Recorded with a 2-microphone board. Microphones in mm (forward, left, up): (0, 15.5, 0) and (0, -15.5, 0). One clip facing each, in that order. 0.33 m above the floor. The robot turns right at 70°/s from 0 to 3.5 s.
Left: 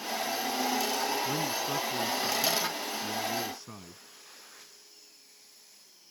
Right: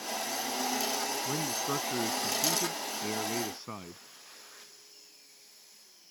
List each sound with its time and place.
1.2 s a man speaking: 175° left; by 4.0 s 30° right